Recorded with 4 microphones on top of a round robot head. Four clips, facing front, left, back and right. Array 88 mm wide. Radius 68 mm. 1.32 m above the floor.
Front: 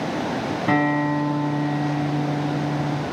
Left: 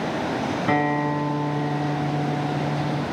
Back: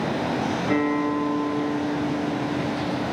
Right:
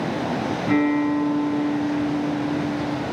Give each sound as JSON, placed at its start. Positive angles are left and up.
{"t": 0.7, "sound": "a guitar", "azimuth_deg": 35, "distance_m": 6.5}